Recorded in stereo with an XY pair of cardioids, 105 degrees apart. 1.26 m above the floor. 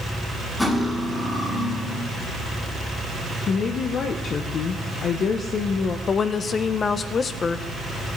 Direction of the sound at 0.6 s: 10° left.